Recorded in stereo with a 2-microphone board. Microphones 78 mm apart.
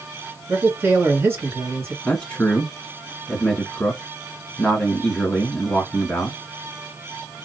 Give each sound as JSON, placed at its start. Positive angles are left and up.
{"t": 0.5, "sound": "a man speaking", "side_deg": -30, "distance_m": 2.0}
{"t": 2.0, "sound": "a man speaking", "side_deg": 20, "distance_m": 1.7}